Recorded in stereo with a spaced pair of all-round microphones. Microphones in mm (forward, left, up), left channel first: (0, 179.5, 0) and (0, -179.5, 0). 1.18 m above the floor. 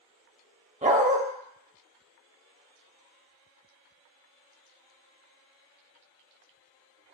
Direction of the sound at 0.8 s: 20° right (ahead or behind).